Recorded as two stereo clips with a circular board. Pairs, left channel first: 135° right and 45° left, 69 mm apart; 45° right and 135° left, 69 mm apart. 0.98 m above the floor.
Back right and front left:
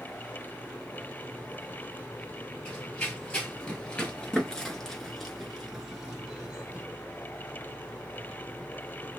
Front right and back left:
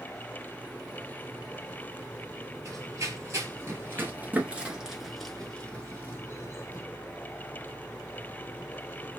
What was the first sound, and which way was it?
Running footsteps, 155° left.